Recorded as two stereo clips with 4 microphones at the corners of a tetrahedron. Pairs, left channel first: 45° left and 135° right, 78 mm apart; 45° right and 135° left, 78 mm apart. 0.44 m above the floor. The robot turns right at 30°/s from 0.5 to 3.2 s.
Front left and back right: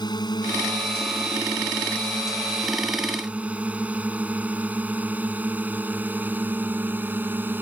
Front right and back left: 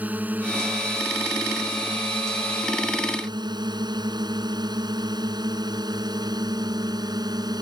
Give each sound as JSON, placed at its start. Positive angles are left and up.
{"t": 0.0, "sound": "a drone", "azimuth_deg": 65}